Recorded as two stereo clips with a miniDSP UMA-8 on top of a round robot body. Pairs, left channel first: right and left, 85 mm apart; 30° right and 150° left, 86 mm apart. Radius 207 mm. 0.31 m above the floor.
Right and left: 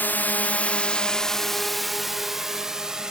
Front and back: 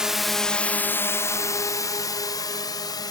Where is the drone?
135° right; by 3.1 s 5° left.